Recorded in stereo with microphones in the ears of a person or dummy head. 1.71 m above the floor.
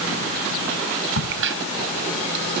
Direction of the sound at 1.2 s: 65° right (ahead or behind).